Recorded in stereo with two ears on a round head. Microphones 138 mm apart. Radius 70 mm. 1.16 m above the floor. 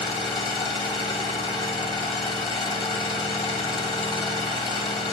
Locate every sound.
0.0 s an engine running: 30° left (ahead or behind), 1.6 m